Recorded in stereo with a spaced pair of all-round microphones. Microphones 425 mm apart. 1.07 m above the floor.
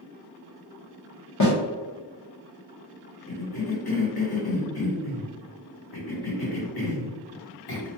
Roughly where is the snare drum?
Left.